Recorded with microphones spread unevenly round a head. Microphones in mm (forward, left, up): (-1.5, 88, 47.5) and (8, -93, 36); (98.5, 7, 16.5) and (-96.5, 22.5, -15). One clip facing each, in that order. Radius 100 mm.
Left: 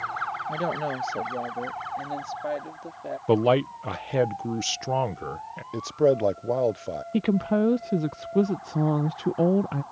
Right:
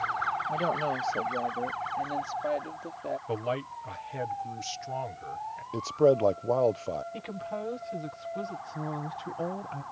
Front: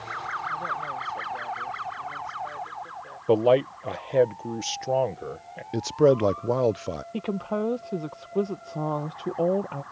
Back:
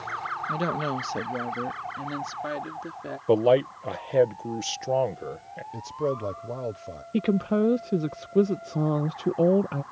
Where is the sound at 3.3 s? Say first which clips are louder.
Left 16 dB, even; 90° left.